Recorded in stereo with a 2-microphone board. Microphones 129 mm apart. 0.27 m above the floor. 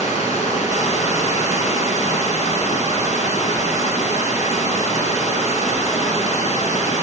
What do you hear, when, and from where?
0.0 s running water: 70° left (ahead or behind), 3 m